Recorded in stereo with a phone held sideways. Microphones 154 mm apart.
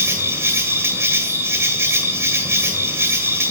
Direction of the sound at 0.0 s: 15° right (ahead or behind).